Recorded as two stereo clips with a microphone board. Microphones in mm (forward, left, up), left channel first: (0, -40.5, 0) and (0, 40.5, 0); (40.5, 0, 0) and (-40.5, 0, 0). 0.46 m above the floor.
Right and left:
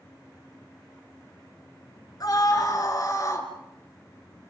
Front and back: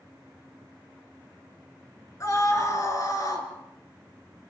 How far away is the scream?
About 6 m.